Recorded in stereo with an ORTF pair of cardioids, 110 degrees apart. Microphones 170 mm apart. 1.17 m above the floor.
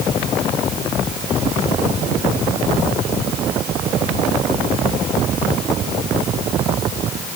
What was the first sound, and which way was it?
Only background noise.